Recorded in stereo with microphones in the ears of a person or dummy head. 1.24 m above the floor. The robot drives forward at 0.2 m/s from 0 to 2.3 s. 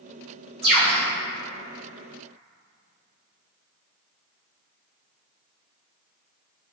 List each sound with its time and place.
0.6 s a bird: 35° right (ahead or behind), 0.8 m; by 1.0 s 30° right (ahead or behind), 0.8 m